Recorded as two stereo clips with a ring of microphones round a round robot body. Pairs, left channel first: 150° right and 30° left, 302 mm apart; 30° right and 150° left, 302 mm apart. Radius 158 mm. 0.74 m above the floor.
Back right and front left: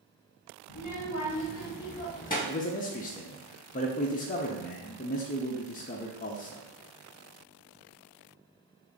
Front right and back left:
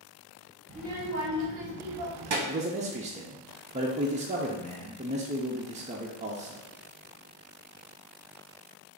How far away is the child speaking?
About 1.0 m.